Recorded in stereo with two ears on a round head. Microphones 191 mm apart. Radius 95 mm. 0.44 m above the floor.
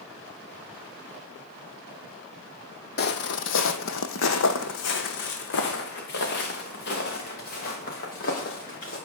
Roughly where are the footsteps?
Left.